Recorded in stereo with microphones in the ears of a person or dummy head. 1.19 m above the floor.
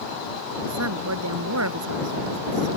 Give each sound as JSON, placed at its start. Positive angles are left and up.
{"t": 0.7, "sound": "a woman speaking", "side_deg": -90}